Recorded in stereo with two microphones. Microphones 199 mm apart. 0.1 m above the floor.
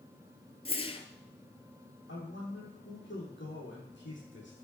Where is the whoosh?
30° left (ahead or behind), 0.8 m.